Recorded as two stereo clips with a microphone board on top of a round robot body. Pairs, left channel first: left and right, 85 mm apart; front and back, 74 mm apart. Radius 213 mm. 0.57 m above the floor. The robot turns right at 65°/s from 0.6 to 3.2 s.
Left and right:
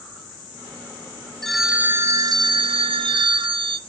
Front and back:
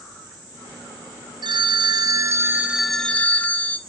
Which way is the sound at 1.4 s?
175° left.